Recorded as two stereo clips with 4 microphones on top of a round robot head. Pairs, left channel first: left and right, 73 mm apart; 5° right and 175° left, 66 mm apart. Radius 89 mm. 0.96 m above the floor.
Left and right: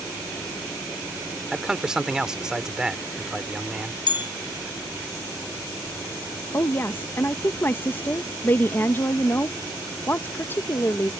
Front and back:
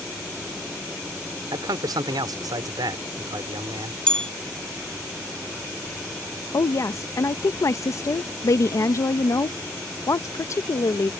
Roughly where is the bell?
Left.